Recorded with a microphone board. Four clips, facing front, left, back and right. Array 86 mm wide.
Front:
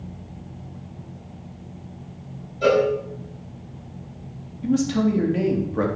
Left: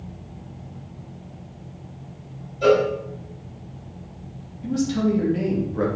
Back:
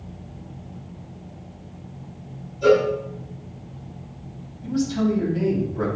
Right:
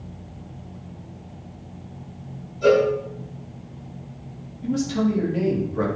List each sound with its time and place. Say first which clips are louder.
2.6 s a cowbell: even, back 1 dB; 35° left, 5.5 m
4.6 s a man speaking: even, front 2 dB; straight ahead, 3 m